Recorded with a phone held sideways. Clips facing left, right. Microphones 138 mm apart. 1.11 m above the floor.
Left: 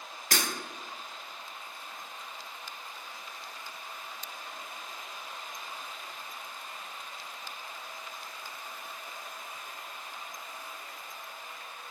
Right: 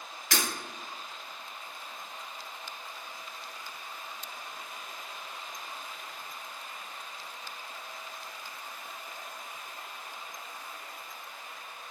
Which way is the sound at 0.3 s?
45° left (ahead or behind).